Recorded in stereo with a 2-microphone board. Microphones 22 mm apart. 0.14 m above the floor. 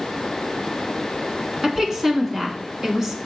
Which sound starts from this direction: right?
A woman speaking, at 1.6 s.